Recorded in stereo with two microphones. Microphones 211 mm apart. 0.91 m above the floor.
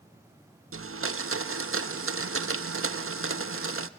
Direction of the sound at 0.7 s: 85° right.